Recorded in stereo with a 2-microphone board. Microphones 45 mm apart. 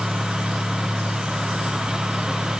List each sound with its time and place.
Only background noise.